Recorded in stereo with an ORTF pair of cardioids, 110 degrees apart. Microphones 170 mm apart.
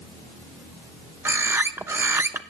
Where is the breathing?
I don't hear breathing.